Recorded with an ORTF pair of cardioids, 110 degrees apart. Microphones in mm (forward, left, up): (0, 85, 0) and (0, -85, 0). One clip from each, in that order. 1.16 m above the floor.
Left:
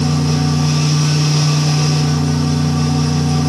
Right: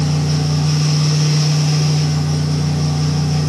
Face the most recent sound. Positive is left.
turn(degrees=65)